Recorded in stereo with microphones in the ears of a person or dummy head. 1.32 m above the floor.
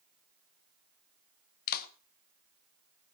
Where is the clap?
55° left (ahead or behind), 1.0 m.